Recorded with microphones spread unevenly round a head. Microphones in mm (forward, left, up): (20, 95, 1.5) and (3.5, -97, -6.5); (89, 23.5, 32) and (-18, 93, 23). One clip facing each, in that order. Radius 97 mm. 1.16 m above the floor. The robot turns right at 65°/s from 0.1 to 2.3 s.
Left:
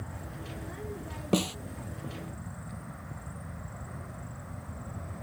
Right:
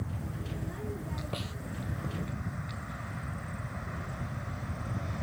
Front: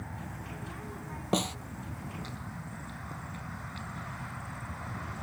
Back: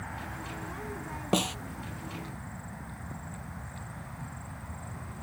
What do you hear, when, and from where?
1.3 s a snare drum: 60° left; by 1.6 s 75° left